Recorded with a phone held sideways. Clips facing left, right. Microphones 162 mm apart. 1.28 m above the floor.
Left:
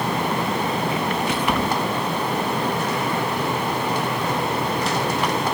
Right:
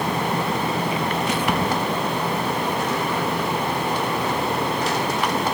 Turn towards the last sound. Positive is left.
turn(degrees=-40)  # may be behind; listen again after turning